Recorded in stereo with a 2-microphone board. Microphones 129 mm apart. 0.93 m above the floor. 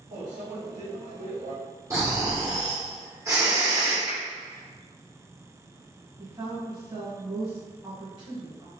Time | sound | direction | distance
0.1 | a microwave | 70° right (ahead or behind) | 1.4 m
1.9 | snoring | 25° right (ahead or behind) | 1.1 m
4.1 | a finger snap | 65° right (ahead or behind) | 1.9 m
6.2 | a woman speaking | 35° right (ahead or behind) | 1.3 m